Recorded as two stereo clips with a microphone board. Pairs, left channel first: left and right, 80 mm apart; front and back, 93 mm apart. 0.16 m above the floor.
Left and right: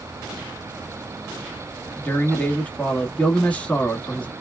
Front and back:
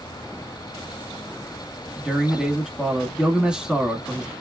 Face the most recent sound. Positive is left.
turn(degrees=115)